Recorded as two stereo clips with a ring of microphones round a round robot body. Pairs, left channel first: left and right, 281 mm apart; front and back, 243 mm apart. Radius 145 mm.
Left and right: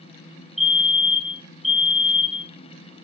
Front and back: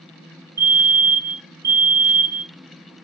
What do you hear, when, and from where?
0.6 s a fire alarm: straight behind, 1.5 m